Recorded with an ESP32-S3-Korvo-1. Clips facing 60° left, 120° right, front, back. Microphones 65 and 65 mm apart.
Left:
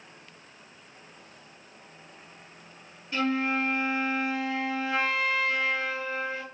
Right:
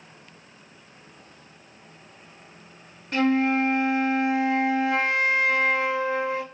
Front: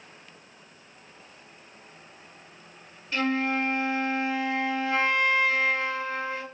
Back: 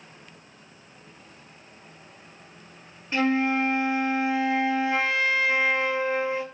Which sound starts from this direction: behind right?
A flute, at 3.1 s.